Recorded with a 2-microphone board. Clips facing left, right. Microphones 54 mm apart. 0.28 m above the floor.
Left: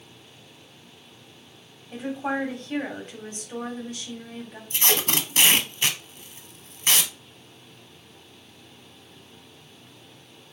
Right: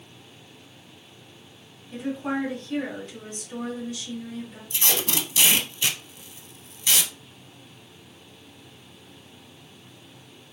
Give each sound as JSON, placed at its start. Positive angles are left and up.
{"t": 1.9, "sound": "a woman speaking", "side_deg": 40, "distance_m": 1.9}
{"t": 4.7, "sound": "tape being pulled", "side_deg": 40, "distance_m": 0.7}